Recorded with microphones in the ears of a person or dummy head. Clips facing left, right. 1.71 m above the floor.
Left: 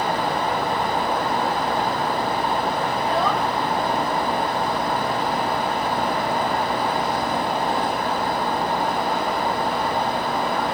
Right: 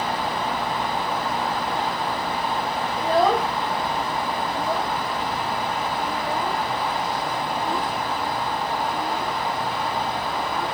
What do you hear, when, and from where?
3.0 s a child speaking: 30° right (ahead or behind); by 10.7 s 75° right (ahead or behind)